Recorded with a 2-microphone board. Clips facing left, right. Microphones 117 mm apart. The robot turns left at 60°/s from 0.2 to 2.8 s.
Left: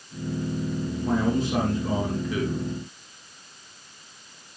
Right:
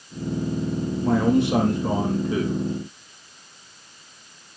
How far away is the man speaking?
About 5 m.